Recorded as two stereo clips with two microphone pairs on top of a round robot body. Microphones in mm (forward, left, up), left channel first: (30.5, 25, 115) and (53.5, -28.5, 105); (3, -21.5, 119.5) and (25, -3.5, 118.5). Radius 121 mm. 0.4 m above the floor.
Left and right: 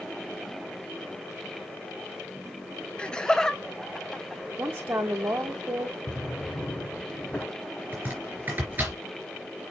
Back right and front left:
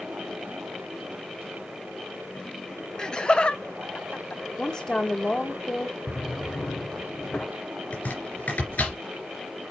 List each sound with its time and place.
3.0 s laughter: 175° right, 0.8 m; by 4.4 s 150° right, 1.4 m
4.6 s a woman speaking: 100° right, 1.5 m
6.1 s a drawer: 175° right, 1.4 m
7.9 s chopping: 130° right, 3.5 m